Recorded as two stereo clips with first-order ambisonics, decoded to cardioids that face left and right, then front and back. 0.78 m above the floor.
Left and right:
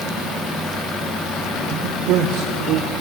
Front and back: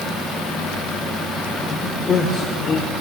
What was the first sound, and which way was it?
A man speaking, 65° right.